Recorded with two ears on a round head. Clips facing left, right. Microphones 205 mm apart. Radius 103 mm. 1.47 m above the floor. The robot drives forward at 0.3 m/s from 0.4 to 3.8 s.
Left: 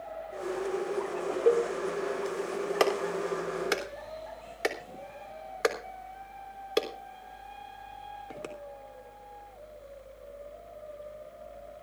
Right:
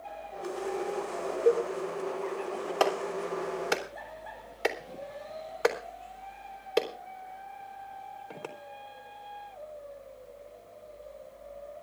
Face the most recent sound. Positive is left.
turn(degrees=25)  # may be behind; listen again after turning